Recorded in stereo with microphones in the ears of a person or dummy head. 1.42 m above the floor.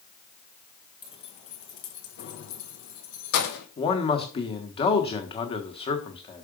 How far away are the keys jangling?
About 1.0 m.